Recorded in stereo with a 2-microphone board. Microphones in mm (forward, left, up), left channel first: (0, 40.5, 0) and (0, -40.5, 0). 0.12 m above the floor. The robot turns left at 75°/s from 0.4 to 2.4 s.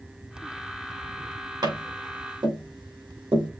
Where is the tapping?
55° right (ahead or behind), 4.5 m; by 3.5 s 70° right (ahead or behind), 4.5 m.